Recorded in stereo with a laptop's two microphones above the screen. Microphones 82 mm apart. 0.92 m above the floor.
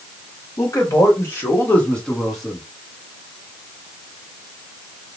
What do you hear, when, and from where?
0.6 s a man speaking: 45° left (ahead or behind), 1.4 m; by 2.6 s 10° right (ahead or behind), 1.1 m